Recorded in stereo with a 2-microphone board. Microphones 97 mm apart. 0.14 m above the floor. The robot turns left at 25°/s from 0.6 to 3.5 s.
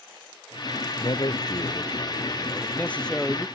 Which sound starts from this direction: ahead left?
A man speaking, at 1.0 s.